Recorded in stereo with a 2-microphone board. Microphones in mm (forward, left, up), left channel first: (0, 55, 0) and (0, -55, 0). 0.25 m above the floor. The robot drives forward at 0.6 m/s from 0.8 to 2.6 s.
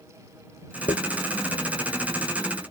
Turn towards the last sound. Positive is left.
turn(degrees=55)  # may be behind; listen again after turning